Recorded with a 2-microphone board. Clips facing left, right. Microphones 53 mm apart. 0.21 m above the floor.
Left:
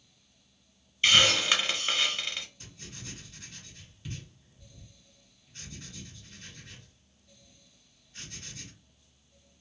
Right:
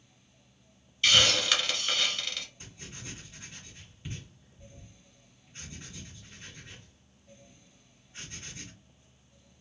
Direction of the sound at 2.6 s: 20° right (ahead or behind).